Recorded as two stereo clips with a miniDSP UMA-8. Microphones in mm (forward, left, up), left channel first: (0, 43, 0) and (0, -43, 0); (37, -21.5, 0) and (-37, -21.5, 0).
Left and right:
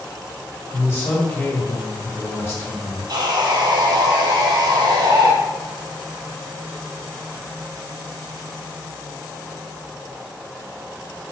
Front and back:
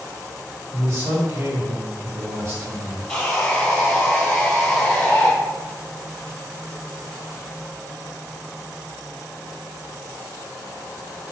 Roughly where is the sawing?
Right.